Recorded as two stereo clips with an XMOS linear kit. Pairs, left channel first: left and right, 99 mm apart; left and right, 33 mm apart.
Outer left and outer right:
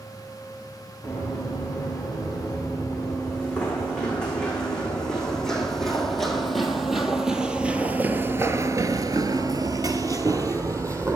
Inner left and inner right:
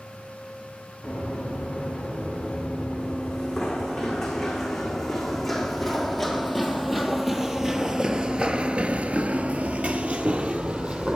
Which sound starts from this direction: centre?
Running footsteps, at 1.0 s.